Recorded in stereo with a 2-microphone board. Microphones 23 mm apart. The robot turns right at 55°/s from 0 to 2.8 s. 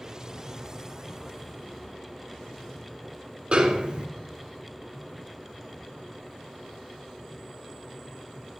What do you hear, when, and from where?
3.5 s a snare drum: 45° right (ahead or behind), 1.9 m